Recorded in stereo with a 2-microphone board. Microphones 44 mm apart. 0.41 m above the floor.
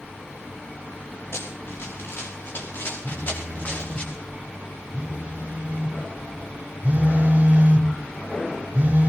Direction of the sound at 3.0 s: 35° right (ahead or behind).